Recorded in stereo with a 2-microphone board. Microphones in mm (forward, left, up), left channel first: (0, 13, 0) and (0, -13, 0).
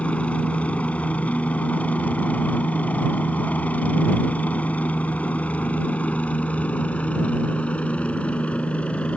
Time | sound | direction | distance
0.0 | a helicopter | 60° left (ahead or behind) | ?